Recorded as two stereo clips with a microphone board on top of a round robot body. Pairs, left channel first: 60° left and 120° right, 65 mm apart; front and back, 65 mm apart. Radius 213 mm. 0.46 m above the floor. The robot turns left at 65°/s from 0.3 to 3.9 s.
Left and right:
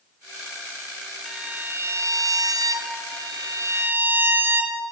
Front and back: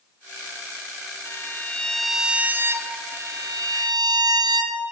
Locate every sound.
1.2 s a violin: 35° right, 1.8 m; by 3.0 s 150° right, 1.8 m
3.1 s a violin: 130° right, 2.0 m; by 4.8 s straight behind, 2.0 m